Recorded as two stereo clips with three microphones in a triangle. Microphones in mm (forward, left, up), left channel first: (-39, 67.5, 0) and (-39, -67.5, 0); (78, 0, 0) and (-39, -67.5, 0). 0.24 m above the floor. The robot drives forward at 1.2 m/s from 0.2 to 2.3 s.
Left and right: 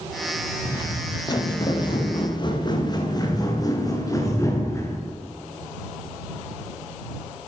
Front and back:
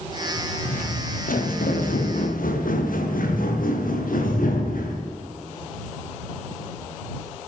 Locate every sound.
0.7 s footsteps: 30° left, 5 m; by 5.0 s 20° left, 6 m